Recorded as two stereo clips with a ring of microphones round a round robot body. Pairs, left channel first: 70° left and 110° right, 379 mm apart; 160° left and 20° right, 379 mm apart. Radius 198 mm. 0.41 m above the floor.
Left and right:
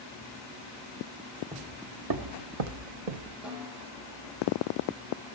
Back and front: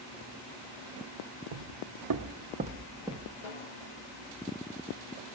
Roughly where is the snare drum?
Behind.